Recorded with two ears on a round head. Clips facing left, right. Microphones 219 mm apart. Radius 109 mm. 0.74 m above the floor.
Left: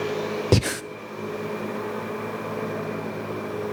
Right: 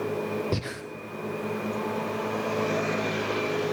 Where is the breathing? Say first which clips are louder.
Left 9 dB; 70° left (ahead or behind), 0.5 m.